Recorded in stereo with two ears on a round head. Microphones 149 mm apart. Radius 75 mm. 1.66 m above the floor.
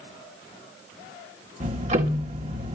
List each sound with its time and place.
1.6 s ticking: 40° right (ahead or behind), 1.4 m